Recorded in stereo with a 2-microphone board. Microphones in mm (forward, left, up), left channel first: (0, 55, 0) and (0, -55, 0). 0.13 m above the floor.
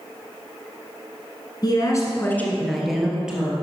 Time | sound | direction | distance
1.6 | a woman speaking | 40° left (ahead or behind) | 1.3 m